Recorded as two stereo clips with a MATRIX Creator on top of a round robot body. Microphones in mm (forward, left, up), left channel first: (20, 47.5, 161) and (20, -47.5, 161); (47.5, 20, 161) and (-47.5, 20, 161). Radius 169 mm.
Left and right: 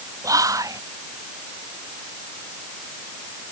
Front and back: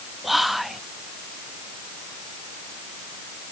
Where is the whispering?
90° right.